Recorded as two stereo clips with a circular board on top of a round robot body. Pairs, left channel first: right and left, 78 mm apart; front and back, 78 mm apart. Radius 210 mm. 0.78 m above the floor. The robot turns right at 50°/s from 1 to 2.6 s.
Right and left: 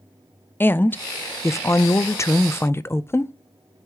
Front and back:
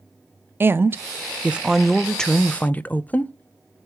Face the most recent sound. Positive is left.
turn(degrees=-55)